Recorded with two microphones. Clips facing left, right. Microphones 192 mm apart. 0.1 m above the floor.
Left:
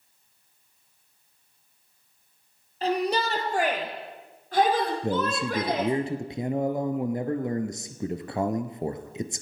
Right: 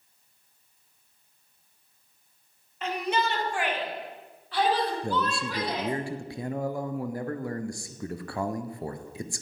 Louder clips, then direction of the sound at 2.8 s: Left 3 dB; 35° left (ahead or behind).